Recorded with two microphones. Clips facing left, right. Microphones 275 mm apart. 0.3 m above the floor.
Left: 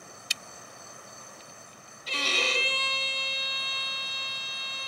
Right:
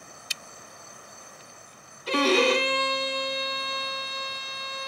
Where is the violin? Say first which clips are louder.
Right 14 dB; 70° right (ahead or behind), 1.3 m.